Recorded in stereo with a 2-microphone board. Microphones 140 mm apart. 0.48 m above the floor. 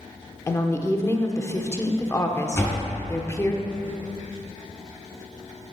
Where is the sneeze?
No sneeze in this recording.